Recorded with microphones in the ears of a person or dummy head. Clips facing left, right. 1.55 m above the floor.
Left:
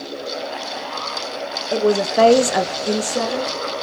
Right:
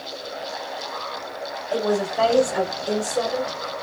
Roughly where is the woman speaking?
Left.